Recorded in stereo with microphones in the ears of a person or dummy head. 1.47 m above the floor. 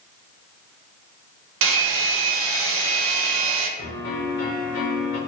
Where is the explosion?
I don't hear an explosion.